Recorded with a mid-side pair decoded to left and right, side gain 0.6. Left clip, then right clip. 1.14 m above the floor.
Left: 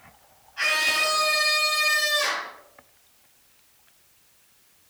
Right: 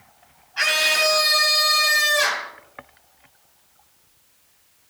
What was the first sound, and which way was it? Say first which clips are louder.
A scream: right 4 dB; 55° right.